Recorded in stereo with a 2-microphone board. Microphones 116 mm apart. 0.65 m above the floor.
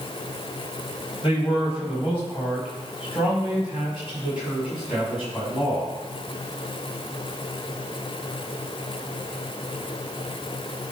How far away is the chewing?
No chewing in this recording.